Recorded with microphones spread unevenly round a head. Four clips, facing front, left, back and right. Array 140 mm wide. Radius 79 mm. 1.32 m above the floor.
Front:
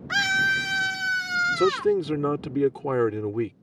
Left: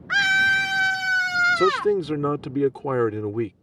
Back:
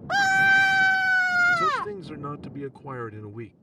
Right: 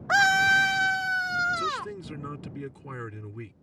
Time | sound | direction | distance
0.1 | a scream | 135° right | ?
1.6 | a man speaking | 55° left | ?